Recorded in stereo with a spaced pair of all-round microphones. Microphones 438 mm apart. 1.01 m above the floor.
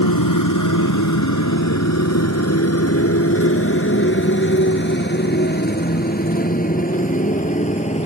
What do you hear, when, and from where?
0.0 s a motorcycle: 50° left (ahead or behind); by 8.1 s 15° left (ahead or behind)